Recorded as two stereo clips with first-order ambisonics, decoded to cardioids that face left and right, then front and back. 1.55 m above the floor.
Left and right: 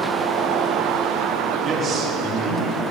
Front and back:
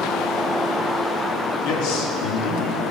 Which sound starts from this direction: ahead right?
A man speaking, at 1.6 s.